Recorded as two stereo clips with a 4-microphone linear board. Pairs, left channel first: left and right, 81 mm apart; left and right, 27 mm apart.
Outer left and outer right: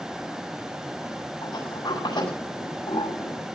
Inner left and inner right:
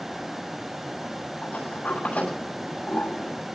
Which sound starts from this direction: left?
A sliding door, at 1.4 s.